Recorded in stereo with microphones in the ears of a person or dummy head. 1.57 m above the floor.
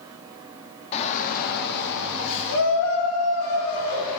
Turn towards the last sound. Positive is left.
turn(degrees=85)